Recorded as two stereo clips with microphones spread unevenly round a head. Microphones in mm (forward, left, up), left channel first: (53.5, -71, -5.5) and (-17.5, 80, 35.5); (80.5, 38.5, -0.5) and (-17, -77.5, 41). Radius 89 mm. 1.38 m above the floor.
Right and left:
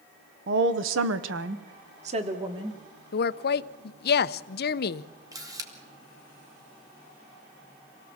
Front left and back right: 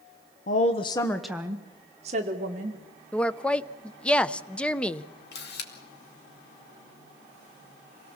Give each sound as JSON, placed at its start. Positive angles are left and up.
{"t": 0.5, "sound": "a woman speaking", "azimuth_deg": 80, "distance_m": 1.1}
{"t": 3.1, "sound": "a woman speaking", "azimuth_deg": -35, "distance_m": 0.7}
{"t": 5.3, "sound": "a camera shutter", "azimuth_deg": 45, "distance_m": 2.5}